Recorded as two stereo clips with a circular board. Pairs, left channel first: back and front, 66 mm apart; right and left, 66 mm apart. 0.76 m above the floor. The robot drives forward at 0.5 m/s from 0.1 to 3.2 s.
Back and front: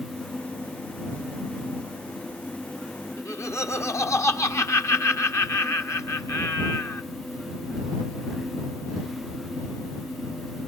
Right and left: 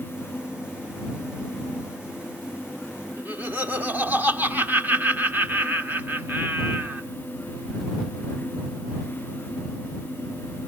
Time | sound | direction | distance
3.2 | laughter | 150° left | 1.4 m